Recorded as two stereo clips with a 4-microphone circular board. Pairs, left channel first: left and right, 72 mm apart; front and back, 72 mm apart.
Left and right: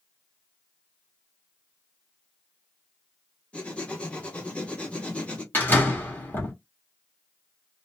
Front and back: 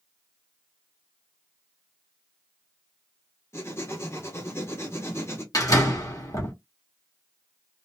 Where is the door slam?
30° left, 1.9 m.